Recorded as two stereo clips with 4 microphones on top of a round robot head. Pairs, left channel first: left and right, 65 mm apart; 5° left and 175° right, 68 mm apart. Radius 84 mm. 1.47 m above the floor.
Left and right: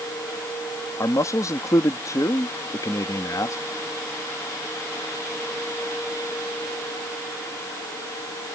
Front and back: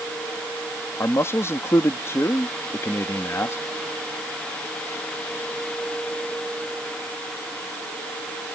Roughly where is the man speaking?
Ahead left.